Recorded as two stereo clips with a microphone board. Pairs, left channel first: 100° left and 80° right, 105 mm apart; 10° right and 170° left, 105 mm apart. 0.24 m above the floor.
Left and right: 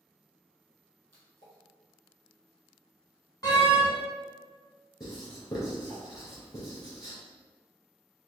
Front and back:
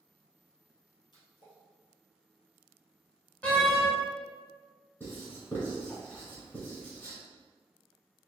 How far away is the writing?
About 2.0 m.